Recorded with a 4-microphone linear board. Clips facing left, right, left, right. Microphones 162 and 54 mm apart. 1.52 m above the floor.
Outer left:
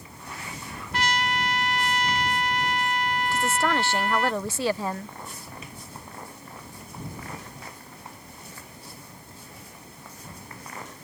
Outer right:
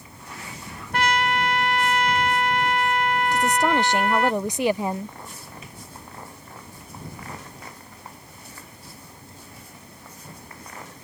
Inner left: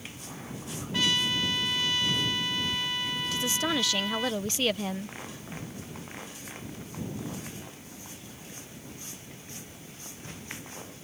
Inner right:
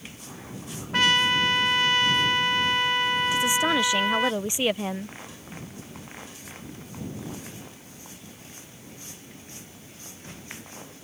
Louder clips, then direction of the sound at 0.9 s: Outer right 4 dB, inner right 7 dB; 55° right (ahead or behind).